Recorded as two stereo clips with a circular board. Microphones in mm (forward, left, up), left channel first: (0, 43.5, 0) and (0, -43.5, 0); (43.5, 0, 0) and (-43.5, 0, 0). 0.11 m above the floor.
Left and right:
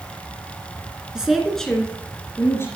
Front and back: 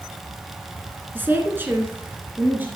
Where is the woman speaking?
160° right, 1.7 m; by 2.7 s 125° left, 2 m.